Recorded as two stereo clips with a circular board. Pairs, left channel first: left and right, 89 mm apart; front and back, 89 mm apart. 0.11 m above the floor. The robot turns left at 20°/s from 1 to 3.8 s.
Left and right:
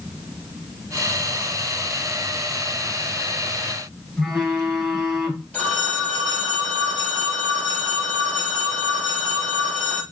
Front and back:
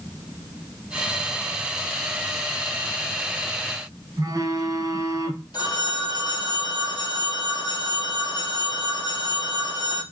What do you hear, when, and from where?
4.2 s a phone buzzing: straight behind, 1.3 m
5.5 s a phone ringing: 15° left, 1.6 m